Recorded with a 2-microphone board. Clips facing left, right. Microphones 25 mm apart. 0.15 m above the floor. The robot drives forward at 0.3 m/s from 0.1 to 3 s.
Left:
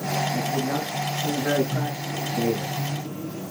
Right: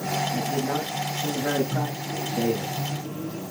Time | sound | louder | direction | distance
0.3 | a man speaking | left 1 dB | 60° right (ahead or behind) | 4.5 m
1.7 | a microwave | even | 75° right (ahead or behind) | 3 m